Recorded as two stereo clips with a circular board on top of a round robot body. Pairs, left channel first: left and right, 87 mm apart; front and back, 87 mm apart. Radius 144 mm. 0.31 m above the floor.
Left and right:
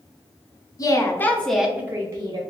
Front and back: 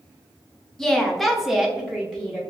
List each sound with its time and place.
0.8 s a woman speaking: 80° left, 1.0 m; by 2.4 s 105° right, 1.1 m